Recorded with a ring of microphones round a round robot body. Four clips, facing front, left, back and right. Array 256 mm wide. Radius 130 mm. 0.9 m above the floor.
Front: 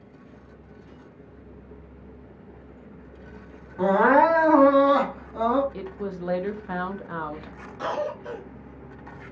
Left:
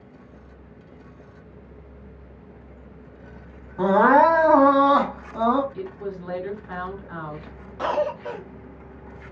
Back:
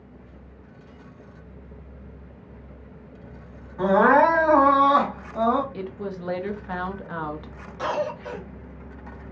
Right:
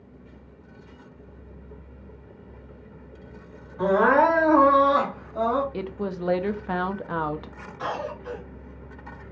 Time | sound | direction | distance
3.8 | crying | 65° left | 2.5 m
5.7 | a woman speaking | 95° right | 1.1 m
7.8 | a cough | 100° left | 1.7 m